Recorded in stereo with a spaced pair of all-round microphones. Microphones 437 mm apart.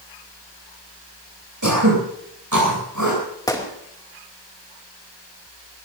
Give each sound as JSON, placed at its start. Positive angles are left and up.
{"t": 1.6, "sound": "throat clearing", "side_deg": -40, "distance_m": 9.0}
{"t": 3.5, "sound": "a gunshot", "side_deg": 10, "distance_m": 2.5}